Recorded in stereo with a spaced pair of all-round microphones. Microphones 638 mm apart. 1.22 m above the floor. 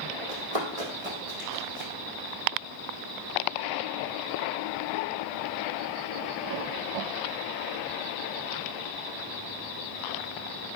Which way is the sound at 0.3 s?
65° right (ahead or behind).